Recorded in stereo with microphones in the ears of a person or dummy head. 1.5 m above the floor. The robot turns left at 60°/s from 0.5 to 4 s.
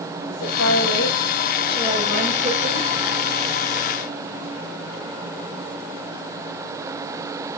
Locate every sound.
0.3 s a woman speaking: 100° left, 6.5 m; by 2.9 s 40° right, 6.5 m